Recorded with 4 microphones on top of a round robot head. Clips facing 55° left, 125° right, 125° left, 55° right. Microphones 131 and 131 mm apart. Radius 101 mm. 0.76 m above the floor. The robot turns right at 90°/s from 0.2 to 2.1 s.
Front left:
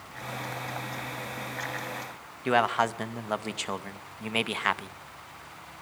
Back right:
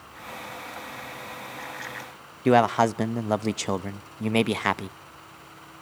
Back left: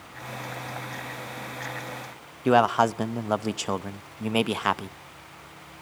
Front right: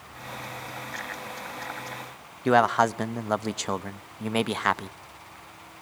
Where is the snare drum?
I don't hear a snare drum.